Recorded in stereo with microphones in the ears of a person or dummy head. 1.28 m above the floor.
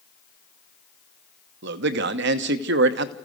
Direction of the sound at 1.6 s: 60° right (ahead or behind).